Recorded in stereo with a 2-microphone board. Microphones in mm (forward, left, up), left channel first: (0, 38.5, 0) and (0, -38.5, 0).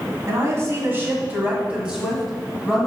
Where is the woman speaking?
40° right (ahead or behind), 1.6 m; by 2.9 s 5° left (ahead or behind), 1.7 m.